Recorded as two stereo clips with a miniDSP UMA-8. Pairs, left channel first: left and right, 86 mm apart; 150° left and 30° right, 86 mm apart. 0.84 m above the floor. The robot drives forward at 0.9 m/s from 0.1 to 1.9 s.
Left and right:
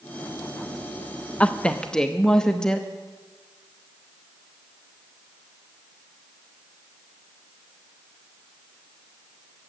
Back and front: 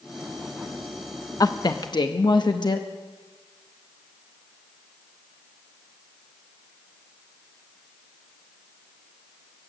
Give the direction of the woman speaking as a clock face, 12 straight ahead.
7 o'clock.